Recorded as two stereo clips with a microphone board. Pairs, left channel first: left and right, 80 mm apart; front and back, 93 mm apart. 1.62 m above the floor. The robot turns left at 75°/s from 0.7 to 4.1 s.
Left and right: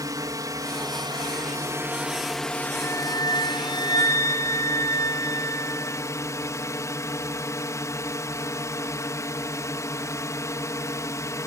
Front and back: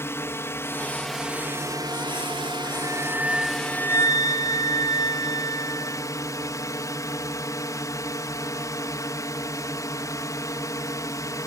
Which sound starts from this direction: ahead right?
A drone, at 0.0 s.